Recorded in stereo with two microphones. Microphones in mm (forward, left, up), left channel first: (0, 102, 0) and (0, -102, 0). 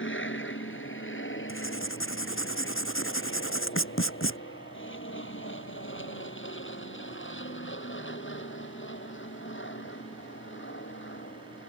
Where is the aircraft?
65° left (ahead or behind).